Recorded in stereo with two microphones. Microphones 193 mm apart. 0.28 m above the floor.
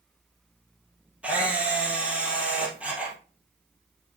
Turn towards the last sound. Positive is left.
turn(degrees=-5)  # may be behind; listen again after turning